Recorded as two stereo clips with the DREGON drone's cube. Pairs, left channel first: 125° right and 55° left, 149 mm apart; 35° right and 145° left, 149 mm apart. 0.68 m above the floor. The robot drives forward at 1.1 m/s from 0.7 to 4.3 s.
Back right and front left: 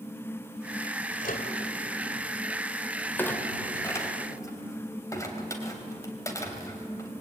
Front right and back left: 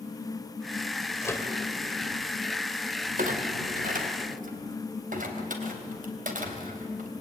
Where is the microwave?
105° right, 2.5 m; by 1.5 s 110° right, 3 m.